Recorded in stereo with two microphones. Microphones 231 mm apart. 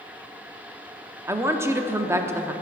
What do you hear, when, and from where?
1.3 s a woman speaking: 10° right (ahead or behind), 0.6 m